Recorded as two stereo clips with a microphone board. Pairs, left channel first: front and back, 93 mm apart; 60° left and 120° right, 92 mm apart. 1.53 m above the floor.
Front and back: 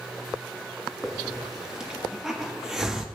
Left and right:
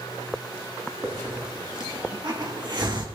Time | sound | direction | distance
1.0 | a hiss | 95° right | 1.6 m